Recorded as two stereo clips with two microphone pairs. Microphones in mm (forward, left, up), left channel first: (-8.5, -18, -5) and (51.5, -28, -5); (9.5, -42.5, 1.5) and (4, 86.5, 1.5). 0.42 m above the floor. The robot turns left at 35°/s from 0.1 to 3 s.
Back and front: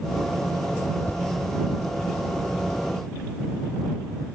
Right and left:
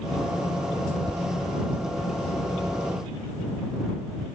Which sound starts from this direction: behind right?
A thud, at 1.1 s.